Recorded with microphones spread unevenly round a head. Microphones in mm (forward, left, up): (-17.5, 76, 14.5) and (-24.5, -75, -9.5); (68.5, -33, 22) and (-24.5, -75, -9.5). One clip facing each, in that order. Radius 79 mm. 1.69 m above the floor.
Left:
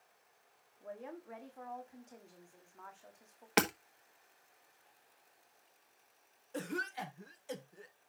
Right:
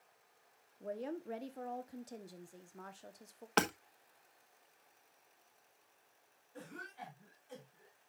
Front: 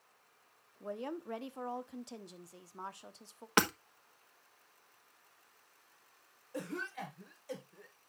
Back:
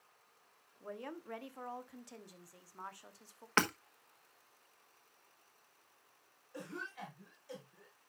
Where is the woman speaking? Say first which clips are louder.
Right 5 dB, front 5 dB; 35° right, 1.1 m.